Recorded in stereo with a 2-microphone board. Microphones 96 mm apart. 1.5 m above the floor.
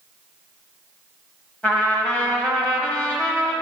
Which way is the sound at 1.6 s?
15° left (ahead or behind).